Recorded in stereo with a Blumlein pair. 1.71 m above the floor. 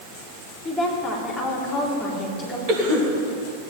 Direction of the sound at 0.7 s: 10° left.